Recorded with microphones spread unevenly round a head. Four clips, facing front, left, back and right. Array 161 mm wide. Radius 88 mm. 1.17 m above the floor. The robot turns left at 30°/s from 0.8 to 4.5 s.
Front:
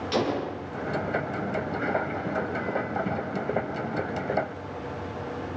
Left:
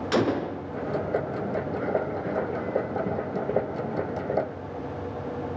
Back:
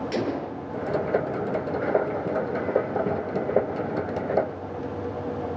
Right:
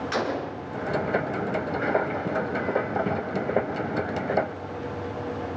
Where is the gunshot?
110° left, 3 m.